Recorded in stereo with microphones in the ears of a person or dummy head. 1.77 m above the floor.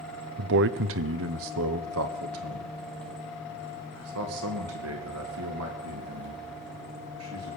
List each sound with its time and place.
0.4 s a man speaking: 55° right (ahead or behind), 0.6 m; by 7.6 s 85° right, 4 m